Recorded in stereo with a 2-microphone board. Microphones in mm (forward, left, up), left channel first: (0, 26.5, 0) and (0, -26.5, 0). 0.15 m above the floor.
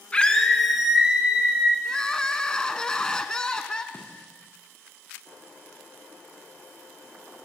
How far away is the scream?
About 1.8 m.